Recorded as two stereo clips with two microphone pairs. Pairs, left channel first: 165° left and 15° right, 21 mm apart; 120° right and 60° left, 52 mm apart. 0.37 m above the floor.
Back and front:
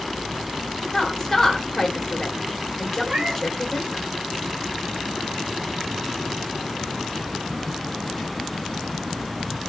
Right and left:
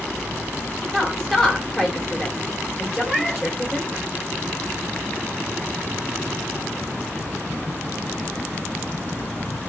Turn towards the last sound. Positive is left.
turn(degrees=-30)